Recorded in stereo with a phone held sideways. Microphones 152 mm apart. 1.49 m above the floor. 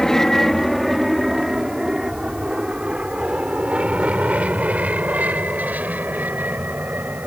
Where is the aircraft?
5° left (ahead or behind); by 7.3 s 10° right (ahead or behind).